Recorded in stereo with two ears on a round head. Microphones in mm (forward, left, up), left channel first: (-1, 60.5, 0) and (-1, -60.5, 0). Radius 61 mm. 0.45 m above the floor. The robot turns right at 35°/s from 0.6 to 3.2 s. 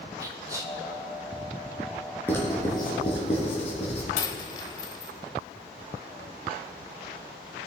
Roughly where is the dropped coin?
Left.